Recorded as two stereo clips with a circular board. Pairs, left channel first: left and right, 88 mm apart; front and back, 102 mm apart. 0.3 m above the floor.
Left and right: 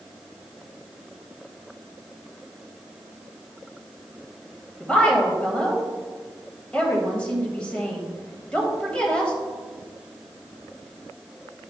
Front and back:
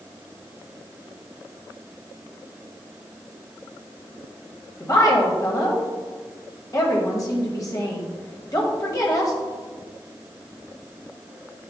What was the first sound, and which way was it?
A woman speaking, 20° left.